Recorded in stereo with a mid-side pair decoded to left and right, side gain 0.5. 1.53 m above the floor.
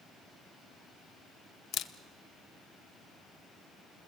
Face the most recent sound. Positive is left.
turn(degrees=55)